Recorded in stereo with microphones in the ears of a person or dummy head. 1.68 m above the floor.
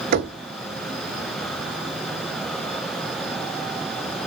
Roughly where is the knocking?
Right.